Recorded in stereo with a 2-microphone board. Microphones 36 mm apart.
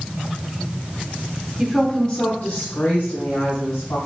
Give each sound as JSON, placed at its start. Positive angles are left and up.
{"t": 1.6, "sound": "a woman speaking", "side_deg": -15, "distance_m": 1.1}